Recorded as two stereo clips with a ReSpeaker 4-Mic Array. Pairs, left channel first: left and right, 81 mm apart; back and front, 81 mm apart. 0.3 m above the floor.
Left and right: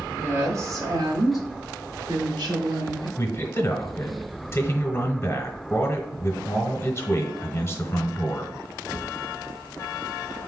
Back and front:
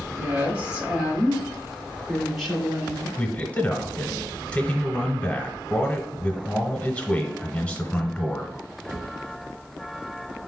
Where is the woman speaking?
55° right, 1.2 m; by 3.1 s 95° right, 2.5 m.